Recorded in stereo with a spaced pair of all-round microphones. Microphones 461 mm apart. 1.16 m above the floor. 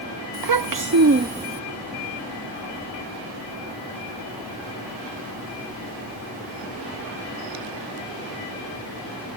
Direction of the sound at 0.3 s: 50° right (ahead or behind).